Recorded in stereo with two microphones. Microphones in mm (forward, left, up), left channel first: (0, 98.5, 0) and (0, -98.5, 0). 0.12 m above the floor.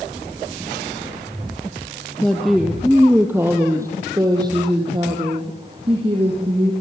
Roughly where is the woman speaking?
Centre.